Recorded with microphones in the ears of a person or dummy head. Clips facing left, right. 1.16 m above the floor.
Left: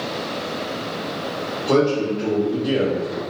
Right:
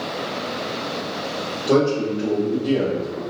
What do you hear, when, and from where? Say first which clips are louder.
1.7 s a man speaking: even; 15° right (ahead or behind), 1.1 m; by 3.2 s 45° left (ahead or behind), 0.6 m